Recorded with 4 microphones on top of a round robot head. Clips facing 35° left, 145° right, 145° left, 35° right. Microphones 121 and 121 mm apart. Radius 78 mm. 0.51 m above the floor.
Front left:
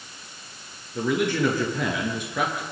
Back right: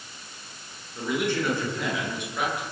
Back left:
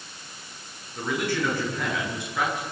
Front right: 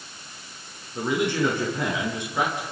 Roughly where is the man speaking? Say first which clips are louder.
Front left 3 dB, front right 3 dB; ahead left.